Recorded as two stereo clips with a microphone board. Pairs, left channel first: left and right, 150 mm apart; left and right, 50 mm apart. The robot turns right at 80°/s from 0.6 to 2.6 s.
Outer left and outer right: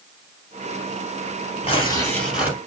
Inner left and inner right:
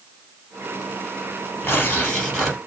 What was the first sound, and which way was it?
Tearing paper, 125° left.